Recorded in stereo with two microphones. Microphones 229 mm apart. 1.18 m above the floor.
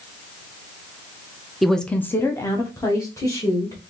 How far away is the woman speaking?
About 0.5 m.